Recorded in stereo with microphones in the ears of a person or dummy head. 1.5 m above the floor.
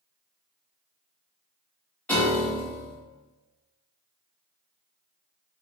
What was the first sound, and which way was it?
A piano, 10° left (ahead or behind).